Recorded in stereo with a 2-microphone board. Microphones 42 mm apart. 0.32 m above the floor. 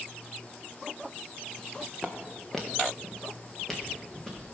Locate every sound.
1.6 s footsteps: 10° left (ahead or behind), 1.2 m; by 4.5 s 5° left (ahead or behind), 3 m